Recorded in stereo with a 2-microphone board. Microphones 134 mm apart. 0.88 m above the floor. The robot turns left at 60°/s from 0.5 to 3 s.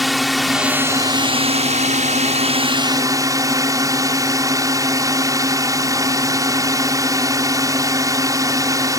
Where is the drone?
Straight ahead; by 9.0 s 150° right.